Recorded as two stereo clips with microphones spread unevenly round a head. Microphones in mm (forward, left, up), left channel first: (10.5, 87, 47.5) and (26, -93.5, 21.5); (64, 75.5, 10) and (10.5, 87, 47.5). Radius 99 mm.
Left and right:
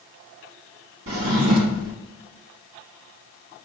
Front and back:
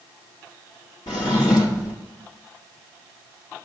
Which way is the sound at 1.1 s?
80° right.